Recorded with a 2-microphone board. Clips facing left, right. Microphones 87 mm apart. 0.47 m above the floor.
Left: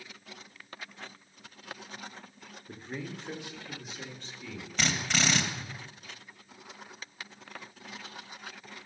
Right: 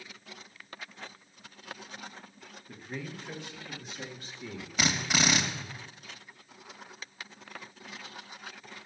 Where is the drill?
10° right (ahead or behind), 1.2 m.